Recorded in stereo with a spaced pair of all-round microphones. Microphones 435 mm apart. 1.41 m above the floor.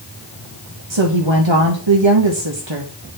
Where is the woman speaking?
75° right (ahead or behind), 1.4 m.